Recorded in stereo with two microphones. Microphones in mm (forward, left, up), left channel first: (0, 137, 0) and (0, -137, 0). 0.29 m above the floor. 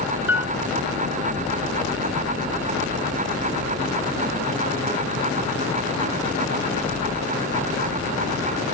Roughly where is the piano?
Centre.